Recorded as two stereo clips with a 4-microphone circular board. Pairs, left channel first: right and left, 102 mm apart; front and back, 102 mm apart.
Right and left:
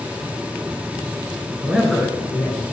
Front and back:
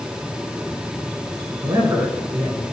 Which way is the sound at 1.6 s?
165° left.